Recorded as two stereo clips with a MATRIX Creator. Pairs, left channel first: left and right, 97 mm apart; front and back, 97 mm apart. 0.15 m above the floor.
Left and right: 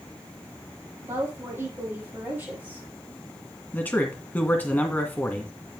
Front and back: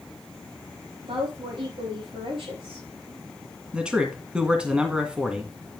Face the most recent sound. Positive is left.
turn(degrees=120)